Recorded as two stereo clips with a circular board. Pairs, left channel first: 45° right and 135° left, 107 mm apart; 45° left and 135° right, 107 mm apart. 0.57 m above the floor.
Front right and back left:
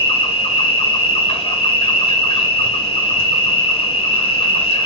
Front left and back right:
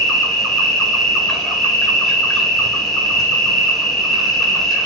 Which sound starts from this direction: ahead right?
An insect, at 0.0 s.